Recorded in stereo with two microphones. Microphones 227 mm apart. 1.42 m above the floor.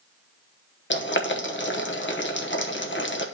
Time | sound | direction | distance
0.9 | boiling | 55° left (ahead or behind) | 1.0 m